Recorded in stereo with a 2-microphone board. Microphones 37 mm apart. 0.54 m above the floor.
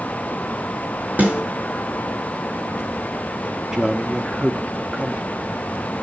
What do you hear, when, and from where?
1.2 s a snare drum: 40° right (ahead or behind), 6 m
3.7 s a man speaking: 20° right (ahead or behind), 0.8 m